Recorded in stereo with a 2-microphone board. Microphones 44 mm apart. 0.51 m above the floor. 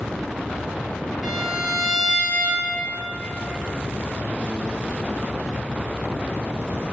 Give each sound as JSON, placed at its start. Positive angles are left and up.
{"t": 1.2, "sound": "a violin", "side_deg": -10, "distance_m": 1.6}